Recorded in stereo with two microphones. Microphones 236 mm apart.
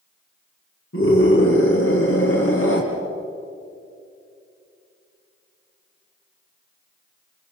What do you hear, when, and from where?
0.9 s a scream: 65° left (ahead or behind), 3.5 m